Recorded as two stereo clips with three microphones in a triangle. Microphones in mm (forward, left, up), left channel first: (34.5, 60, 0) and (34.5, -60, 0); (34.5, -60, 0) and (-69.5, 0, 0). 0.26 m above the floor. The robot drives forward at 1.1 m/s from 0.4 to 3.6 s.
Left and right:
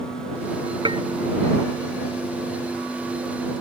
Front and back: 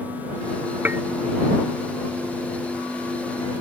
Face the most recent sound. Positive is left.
turn(degrees=-160)